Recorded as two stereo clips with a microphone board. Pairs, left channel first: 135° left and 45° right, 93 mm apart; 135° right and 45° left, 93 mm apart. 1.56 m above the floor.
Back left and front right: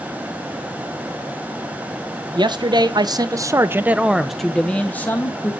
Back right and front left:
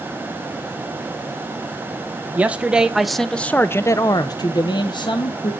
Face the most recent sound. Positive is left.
turn(degrees=-160)